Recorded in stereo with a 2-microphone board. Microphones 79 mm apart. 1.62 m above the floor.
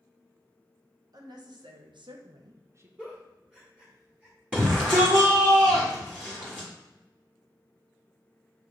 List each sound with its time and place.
1.1 s a woman speaking: 55° right (ahead or behind), 1.1 m; by 2.9 s 30° right (ahead or behind), 0.6 m
3.0 s a giggle: 15° right (ahead or behind), 1.4 m
4.5 s a shout: 20° right (ahead or behind), 1.1 m